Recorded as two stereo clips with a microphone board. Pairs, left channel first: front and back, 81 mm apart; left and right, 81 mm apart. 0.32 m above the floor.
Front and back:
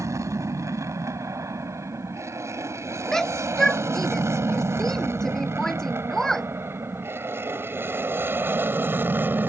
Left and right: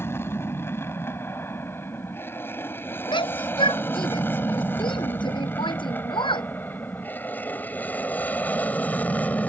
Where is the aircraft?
140° left.